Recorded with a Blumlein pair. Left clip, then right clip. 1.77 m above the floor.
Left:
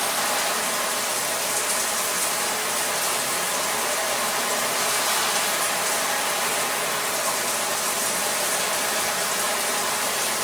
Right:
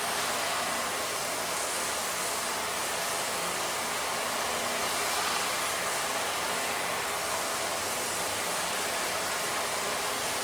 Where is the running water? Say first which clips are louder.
Left 6 dB; 35° left, 2.5 m.